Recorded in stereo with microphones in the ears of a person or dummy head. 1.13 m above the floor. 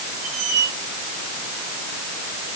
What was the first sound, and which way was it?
A squeak, 80° right.